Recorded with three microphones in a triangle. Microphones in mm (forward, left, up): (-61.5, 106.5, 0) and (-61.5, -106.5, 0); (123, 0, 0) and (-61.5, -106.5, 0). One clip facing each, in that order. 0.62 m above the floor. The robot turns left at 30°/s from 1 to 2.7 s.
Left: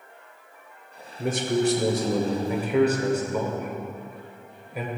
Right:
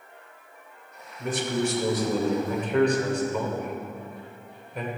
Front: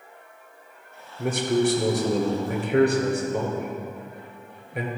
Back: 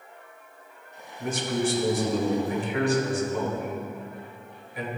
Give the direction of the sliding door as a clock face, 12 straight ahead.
No sliding door in this recording.